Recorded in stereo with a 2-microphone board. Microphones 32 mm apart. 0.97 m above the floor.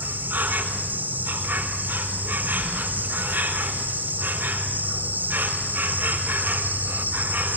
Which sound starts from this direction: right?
An insect, at 0.0 s.